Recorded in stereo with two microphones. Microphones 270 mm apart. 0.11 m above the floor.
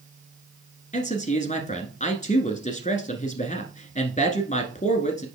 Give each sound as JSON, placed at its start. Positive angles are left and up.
{"t": 0.9, "sound": "a man speaking", "side_deg": 30, "distance_m": 1.1}